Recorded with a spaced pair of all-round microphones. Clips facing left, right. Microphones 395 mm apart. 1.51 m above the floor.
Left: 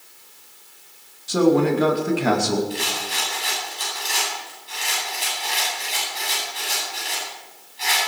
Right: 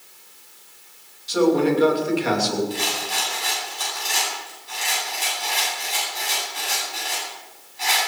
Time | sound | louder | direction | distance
1.3 | a man speaking | left 1 dB | 60° left (ahead or behind) | 2.5 m
2.7 | a rattle | right 1 dB | 55° right (ahead or behind) | 10 m